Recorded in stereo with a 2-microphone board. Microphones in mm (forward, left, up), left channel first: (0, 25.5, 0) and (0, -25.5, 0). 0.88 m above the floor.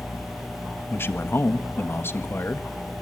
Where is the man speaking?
50° left (ahead or behind), 1.4 m.